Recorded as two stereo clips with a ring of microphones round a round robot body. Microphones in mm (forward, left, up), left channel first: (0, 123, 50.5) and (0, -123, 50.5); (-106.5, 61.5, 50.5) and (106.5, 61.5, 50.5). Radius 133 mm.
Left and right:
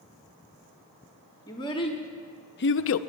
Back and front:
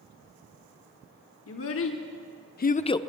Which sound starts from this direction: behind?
A child speaking, at 1.5 s.